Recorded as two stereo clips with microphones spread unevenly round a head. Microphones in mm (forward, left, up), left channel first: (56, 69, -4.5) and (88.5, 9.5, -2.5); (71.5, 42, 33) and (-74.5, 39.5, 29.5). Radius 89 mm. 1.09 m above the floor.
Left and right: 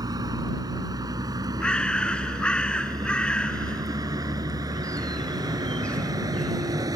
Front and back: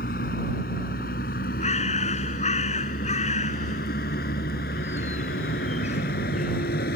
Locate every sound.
0.0 s a vehicle: 40° right; by 7.0 s 35° right
1.6 s a bird: 45° left